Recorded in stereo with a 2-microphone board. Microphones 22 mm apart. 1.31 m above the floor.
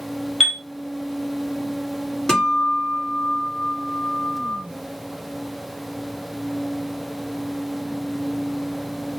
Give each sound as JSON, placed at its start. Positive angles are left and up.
{"t": 0.4, "sound": "a chime", "side_deg": 0, "distance_m": 0.9}
{"t": 2.3, "sound": "a guitar", "side_deg": 20, "distance_m": 1.5}